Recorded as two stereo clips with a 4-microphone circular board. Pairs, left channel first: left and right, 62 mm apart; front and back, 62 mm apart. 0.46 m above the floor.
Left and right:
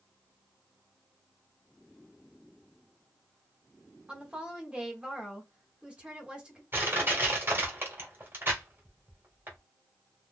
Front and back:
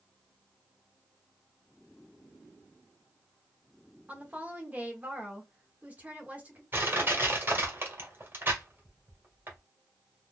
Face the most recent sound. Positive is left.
turn(degrees=-135)